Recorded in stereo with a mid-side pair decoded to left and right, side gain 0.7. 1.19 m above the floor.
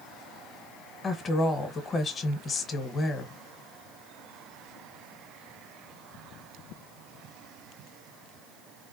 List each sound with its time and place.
1.0 s a woman speaking: 30° left, 1.0 m